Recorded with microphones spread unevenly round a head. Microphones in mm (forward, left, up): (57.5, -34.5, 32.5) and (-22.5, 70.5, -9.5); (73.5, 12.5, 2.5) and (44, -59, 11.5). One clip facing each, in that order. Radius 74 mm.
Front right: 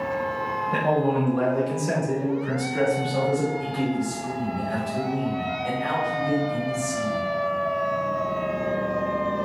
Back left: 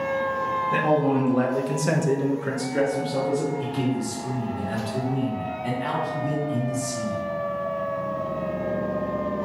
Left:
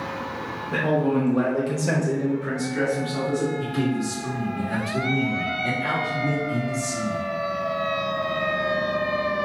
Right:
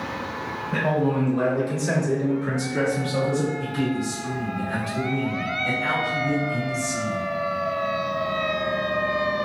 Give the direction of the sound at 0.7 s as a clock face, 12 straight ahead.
9 o'clock.